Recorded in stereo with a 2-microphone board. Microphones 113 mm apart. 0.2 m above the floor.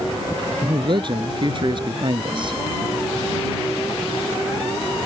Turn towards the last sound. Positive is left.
turn(degrees=-50)  # may be behind; listen again after turning